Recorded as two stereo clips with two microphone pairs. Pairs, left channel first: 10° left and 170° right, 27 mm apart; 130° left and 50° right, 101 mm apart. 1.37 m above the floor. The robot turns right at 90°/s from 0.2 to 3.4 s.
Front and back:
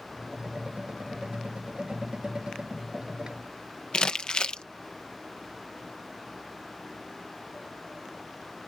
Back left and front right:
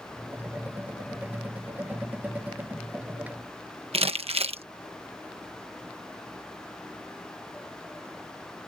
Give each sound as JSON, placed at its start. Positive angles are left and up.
{"t": 3.9, "sound": "crumpling", "azimuth_deg": -45}